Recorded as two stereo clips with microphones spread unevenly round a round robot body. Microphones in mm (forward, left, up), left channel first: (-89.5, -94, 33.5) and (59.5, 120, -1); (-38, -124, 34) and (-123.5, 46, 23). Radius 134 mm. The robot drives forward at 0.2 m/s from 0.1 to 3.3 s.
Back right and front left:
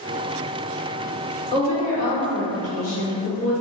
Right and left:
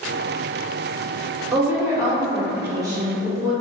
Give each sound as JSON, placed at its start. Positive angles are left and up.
{"t": 1.5, "sound": "a woman speaking", "azimuth_deg": 175, "distance_m": 1.2}